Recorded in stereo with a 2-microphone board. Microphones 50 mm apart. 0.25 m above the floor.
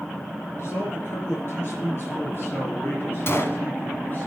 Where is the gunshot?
55° left (ahead or behind), 0.9 m.